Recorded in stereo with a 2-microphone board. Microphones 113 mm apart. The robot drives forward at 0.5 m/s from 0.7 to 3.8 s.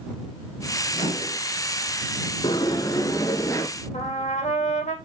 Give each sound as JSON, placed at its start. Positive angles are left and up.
{"t": 0.9, "sound": "a microwave", "side_deg": 80, "distance_m": 4.0}
{"t": 2.4, "sound": "a sliding door", "side_deg": 45, "distance_m": 0.9}
{"t": 3.9, "sound": "a trumpet", "side_deg": 90, "distance_m": 3.5}